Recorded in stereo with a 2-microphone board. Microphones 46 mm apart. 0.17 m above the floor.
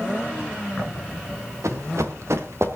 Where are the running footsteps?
80° right, 2.5 m; by 2.8 s 60° right (ahead or behind), 2.5 m.